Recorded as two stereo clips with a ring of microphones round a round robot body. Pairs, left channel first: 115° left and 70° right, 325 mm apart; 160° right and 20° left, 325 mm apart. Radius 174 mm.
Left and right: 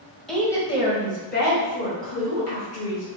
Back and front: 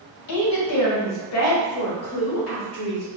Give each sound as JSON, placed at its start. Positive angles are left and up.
{"t": 0.3, "sound": "a woman speaking", "azimuth_deg": -160, "distance_m": 1.0}